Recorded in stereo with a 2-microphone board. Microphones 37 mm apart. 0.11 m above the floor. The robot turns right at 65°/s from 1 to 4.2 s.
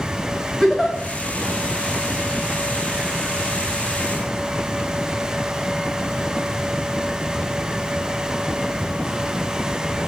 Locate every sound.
0.6 s a giggle: 5° left (ahead or behind), 7 m